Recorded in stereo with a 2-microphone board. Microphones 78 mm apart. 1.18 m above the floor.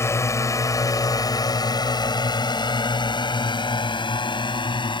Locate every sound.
0.0 s a drone: 35° left (ahead or behind); by 5.0 s 85° left